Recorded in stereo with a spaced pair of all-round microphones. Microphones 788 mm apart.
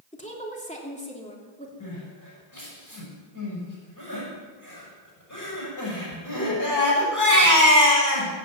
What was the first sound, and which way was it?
A woman speaking, 10° left (ahead or behind).